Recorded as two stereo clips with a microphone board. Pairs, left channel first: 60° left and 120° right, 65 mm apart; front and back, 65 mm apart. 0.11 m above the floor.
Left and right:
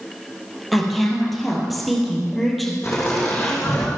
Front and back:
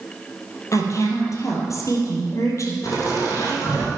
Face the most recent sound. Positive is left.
turn(degrees=5)